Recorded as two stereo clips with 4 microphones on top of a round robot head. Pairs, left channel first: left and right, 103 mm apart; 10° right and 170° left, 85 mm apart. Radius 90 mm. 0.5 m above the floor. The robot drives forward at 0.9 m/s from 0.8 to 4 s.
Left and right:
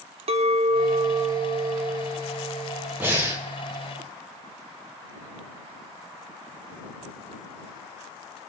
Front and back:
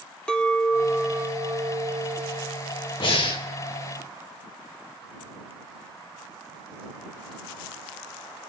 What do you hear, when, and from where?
0.3 s a clink: 90° right, 0.7 m; by 2.9 s 160° right, 2 m
3.0 s breathing: 20° right, 1.7 m; by 3.4 s 25° right, 1.4 m